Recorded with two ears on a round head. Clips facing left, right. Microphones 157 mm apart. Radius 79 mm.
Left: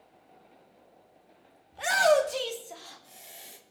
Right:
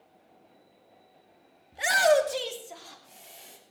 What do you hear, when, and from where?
1.7 s a shout: 20° right (ahead or behind), 2 m; by 3.6 s 10° left (ahead or behind), 3 m